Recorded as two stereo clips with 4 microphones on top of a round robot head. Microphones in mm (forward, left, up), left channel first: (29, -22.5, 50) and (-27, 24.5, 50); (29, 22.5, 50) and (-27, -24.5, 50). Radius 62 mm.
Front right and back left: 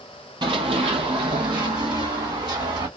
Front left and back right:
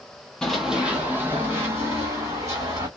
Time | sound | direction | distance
0.4 | running footsteps | 120° left | 0.5 m